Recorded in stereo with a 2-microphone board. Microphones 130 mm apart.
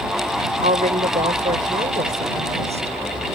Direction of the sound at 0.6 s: 85° right.